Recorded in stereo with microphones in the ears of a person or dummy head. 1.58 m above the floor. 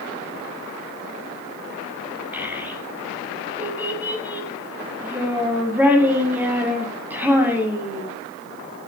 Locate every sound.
2.3 s a child speaking: 15° right (ahead or behind), 8 m